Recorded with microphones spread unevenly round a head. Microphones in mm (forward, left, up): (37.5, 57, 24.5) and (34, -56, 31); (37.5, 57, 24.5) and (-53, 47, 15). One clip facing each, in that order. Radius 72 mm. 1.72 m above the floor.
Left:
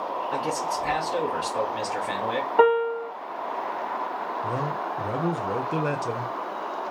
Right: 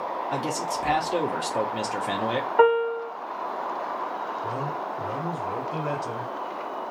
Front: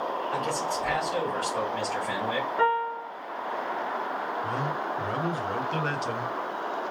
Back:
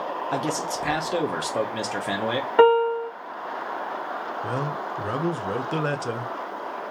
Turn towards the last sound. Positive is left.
turn(degrees=140)